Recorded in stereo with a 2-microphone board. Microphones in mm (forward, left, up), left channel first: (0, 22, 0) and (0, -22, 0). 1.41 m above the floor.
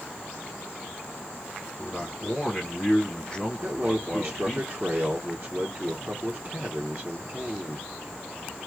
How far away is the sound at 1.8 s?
About 1.9 m.